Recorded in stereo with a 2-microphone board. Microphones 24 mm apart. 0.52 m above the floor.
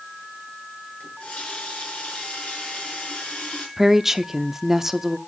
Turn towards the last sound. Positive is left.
turn(degrees=-15)  # may be behind; listen again after turning